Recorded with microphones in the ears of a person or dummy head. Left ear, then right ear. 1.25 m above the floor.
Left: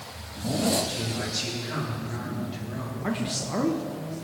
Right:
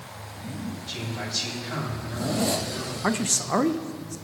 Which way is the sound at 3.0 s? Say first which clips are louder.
Right 5 dB; 35° right (ahead or behind).